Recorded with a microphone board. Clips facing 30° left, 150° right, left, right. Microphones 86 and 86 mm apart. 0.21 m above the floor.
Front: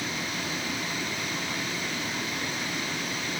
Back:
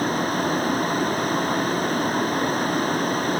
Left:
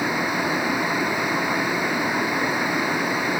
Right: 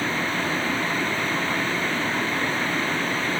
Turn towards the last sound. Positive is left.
turn(degrees=165)